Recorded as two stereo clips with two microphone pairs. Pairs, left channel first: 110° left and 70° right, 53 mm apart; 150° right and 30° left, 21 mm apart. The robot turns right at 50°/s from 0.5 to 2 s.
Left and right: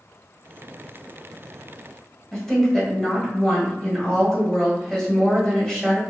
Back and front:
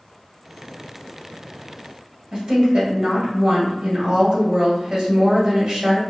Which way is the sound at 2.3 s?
35° left.